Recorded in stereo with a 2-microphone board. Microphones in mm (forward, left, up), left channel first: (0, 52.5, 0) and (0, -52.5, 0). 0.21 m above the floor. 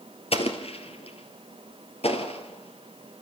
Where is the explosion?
70° left (ahead or behind), 2.0 m.